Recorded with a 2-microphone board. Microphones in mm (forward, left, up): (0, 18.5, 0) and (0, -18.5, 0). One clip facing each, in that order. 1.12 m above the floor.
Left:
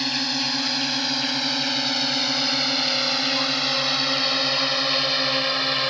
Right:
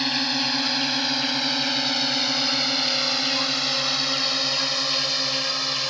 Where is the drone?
10° right (ahead or behind); by 5.9 s 25° left (ahead or behind).